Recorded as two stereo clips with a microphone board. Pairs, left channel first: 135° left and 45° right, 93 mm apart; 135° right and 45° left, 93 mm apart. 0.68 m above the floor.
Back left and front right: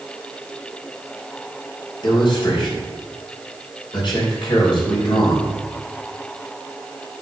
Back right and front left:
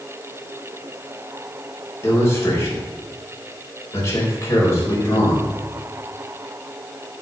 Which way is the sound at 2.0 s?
165° left.